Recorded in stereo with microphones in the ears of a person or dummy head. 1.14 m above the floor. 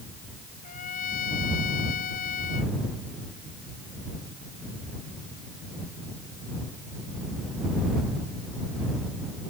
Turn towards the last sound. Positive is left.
turn(degrees=45)  # may be behind; listen again after turning